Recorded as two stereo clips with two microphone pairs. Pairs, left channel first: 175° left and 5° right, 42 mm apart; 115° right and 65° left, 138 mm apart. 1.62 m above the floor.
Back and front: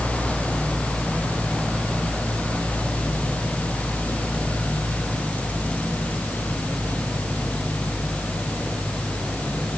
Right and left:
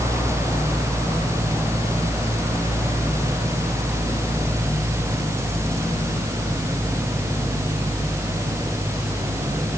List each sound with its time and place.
Only background noise.